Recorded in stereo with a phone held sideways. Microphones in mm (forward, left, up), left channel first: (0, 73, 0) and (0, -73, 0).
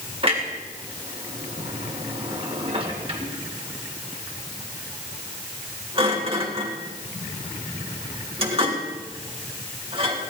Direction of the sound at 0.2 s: 40° right (ahead or behind).